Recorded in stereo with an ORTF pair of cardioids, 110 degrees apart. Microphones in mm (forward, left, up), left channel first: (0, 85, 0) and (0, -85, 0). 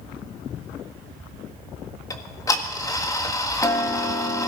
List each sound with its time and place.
2.1 s ticking: 20° left, 1.5 m